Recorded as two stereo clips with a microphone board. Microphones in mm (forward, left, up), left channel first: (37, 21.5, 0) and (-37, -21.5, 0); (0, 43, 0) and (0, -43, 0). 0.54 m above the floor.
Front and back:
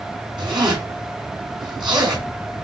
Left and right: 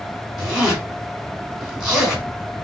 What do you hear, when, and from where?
0.4 s a zipper: 175° right, 2.5 m